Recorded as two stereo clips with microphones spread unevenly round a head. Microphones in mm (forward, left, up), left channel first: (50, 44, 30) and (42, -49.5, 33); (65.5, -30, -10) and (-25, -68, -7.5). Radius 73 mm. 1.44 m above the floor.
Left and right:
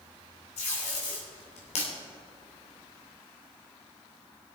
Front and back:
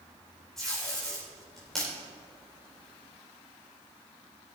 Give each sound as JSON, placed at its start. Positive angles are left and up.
{"t": 0.6, "sound": "tape being pulled", "azimuth_deg": 110, "distance_m": 2.5}